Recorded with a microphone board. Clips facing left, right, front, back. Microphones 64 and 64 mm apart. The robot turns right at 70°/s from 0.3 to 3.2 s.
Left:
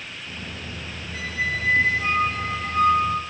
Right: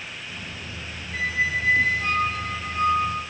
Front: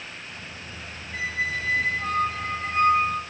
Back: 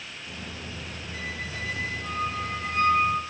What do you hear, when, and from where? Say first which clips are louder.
1.1 s a squeak: right 3 dB, front 8 dB; 45° right, 1.7 m; by 3.2 s 100° left, 1.7 m